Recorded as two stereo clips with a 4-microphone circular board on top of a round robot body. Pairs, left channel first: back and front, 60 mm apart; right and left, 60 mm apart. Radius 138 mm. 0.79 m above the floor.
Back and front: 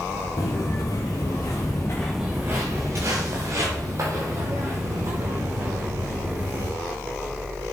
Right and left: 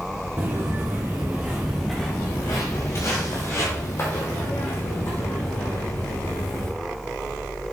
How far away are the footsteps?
About 1.3 m.